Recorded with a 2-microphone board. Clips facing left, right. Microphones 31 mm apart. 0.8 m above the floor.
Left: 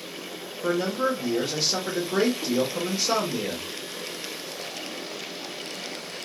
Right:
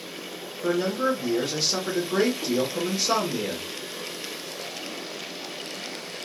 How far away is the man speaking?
About 1.0 m.